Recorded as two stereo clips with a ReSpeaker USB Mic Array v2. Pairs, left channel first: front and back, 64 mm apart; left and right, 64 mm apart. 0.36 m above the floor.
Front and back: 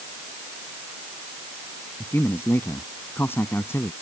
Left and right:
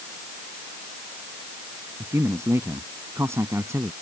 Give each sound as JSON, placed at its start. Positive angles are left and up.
{"t": 2.0, "sound": "a man speaking", "azimuth_deg": -50}